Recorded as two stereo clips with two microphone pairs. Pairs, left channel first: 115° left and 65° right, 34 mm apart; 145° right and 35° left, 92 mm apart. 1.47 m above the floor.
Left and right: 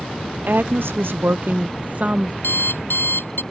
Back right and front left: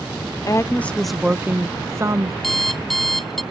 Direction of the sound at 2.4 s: 130° left.